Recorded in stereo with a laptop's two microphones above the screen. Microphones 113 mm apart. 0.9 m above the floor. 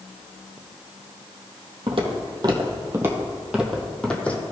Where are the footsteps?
50° right (ahead or behind), 1.9 m; by 4.4 s 15° left (ahead or behind), 2 m.